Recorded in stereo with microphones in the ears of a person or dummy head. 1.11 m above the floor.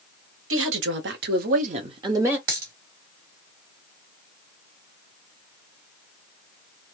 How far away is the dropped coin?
About 1.3 m.